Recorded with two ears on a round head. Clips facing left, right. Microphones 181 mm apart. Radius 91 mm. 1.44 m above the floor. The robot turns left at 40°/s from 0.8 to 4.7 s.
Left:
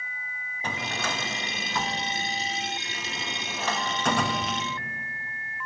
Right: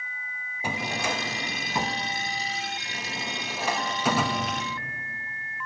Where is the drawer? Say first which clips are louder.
Right 2 dB; 10° right (ahead or behind), 0.7 m; by 4.6 s centre (ahead or behind), 0.7 m.